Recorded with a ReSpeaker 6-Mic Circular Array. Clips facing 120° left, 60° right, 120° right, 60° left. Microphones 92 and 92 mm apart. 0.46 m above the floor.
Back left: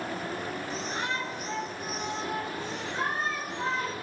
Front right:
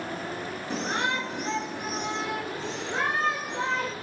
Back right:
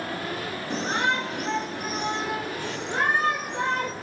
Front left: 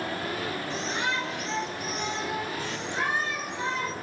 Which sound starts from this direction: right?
A shout, at 0.7 s.